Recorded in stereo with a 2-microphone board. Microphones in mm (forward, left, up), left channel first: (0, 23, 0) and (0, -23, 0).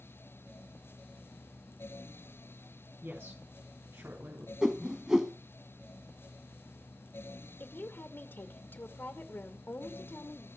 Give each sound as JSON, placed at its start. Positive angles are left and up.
{"t": 3.0, "sound": "a woman speaking", "side_deg": -55, "distance_m": 4.5}
{"t": 4.6, "sound": "a whoosh", "side_deg": -15, "distance_m": 1.0}
{"t": 7.6, "sound": "a woman speaking", "side_deg": 55, "distance_m": 2.0}